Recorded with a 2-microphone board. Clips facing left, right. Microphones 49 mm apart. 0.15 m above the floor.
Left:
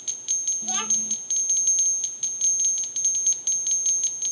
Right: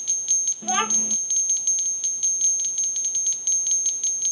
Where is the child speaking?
35° right (ahead or behind).